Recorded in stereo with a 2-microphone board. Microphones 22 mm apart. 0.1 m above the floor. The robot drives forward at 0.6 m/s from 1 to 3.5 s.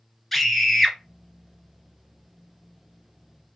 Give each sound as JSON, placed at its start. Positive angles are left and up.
{"t": 0.3, "sound": "a scream", "side_deg": 5, "distance_m": 1.1}